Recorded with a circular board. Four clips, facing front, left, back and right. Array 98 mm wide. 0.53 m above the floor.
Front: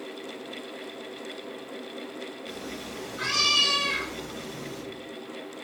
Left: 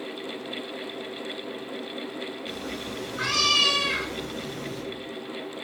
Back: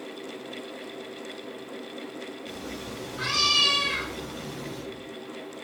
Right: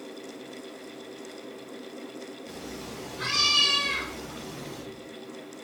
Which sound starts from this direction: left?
A cat meowing, at 2.5 s.